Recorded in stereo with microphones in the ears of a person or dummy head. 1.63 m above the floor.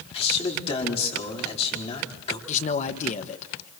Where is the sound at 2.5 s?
45° left (ahead or behind), 1.4 m.